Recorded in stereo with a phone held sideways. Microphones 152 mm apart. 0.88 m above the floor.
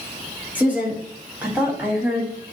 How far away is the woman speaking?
About 4.5 m.